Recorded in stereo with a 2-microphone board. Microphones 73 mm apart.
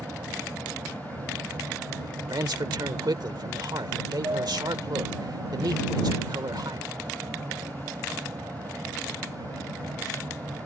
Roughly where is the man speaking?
Right.